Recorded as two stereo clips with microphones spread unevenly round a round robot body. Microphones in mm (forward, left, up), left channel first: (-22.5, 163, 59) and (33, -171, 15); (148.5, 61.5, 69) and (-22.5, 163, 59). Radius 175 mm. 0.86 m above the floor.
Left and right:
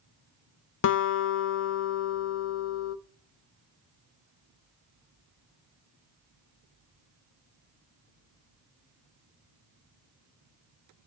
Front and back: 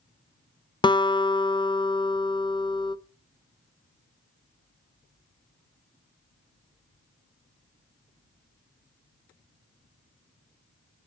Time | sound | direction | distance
0.8 | a guitar | 40° left | 0.5 m